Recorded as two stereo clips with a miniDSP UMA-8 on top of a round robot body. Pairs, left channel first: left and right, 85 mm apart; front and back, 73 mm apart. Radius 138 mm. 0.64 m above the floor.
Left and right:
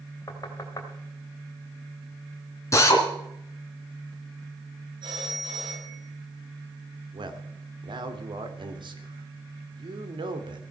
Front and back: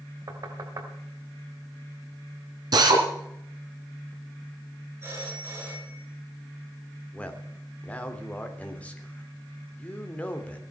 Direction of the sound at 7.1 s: 70° right.